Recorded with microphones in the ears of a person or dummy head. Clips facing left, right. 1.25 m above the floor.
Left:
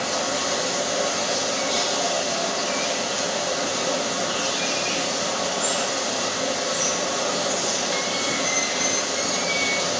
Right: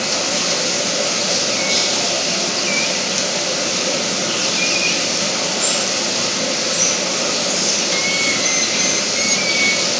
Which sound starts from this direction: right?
Running water, at 0.0 s.